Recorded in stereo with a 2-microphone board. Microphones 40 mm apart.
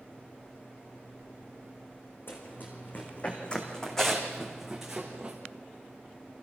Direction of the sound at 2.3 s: 55° left (ahead or behind).